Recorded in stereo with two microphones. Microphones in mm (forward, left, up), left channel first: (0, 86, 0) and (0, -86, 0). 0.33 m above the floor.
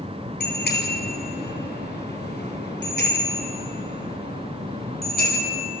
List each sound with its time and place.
0.4 s a bicycle bell: 75° left (ahead or behind), 4.5 m; by 5.6 s 60° left (ahead or behind), 7 m